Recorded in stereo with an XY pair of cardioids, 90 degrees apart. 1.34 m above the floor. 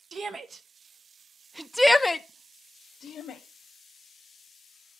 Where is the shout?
55° right, 1.2 m; by 3.4 s 70° left, 1.0 m.